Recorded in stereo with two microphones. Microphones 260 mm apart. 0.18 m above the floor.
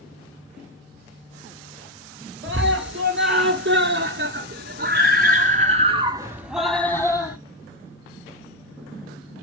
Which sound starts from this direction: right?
A scream, at 2.4 s.